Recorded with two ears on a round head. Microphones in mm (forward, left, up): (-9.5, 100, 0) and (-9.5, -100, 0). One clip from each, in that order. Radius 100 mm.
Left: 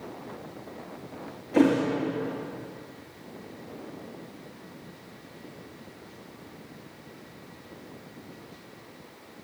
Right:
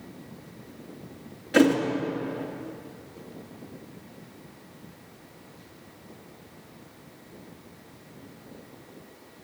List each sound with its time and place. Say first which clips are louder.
1.5 s a thud: right 2 dB; 60° right (ahead or behind), 3.5 m